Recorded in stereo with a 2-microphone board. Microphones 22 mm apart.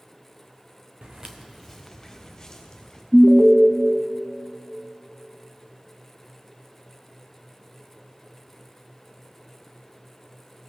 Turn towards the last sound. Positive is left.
turn(degrees=-15)  # may be behind; listen again after turning